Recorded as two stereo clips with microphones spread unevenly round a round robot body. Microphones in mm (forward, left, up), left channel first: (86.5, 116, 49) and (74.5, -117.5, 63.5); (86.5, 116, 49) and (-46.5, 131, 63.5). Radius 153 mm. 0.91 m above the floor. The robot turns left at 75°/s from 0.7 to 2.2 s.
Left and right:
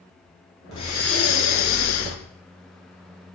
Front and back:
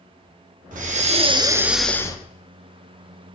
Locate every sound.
0.7 s breathing: 165° left, 0.7 m; by 2.2 s 60° left, 0.7 m